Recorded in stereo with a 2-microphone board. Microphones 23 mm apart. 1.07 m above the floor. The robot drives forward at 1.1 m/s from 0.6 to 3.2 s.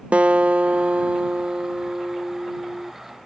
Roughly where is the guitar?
Right.